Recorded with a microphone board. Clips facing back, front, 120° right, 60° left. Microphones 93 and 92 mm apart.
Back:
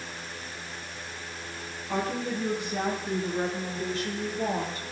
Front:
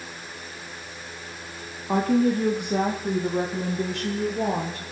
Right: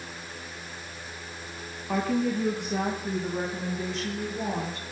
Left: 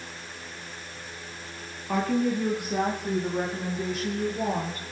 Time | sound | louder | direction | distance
1.9 | a woman speaking | front 9 dB, left 1 dB | 30° right | 2 m